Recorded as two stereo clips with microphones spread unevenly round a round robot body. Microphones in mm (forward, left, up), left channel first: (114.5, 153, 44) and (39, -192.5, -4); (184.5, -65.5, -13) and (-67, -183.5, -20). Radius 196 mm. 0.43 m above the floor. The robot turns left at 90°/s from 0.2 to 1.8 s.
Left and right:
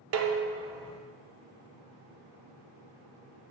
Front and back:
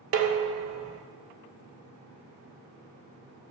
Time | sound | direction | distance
0.1 | dishes clattering | 130° right | 0.6 m